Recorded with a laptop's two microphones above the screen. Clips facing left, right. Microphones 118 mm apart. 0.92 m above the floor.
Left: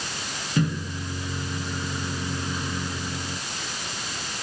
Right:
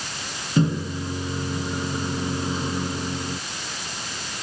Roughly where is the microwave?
Right.